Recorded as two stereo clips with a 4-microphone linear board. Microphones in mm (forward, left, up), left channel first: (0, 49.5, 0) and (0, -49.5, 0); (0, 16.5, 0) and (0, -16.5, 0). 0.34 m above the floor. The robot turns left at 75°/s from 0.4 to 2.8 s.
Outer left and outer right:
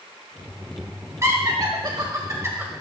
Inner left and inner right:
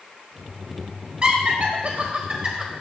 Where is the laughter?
30° right (ahead or behind), 1.2 m; by 2.7 s 15° right (ahead or behind), 1.2 m.